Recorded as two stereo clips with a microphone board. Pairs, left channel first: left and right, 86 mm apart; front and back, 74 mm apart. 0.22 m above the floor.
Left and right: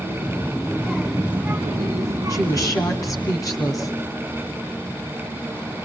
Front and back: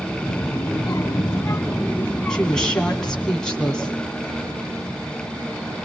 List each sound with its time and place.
0.2 s a child speaking: 20° left, 1.1 m; by 3.3 s 95° right, 1.4 m
2.3 s a woman speaking: 75° left, 2 m